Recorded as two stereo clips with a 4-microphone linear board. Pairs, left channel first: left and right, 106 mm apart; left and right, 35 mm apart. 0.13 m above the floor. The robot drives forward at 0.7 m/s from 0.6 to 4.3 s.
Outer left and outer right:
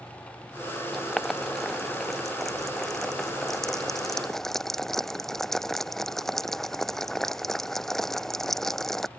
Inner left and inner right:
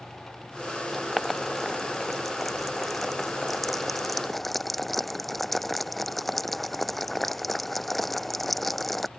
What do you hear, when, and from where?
0.9 s boiling: centre (ahead or behind); by 9.1 s 5° left (ahead or behind)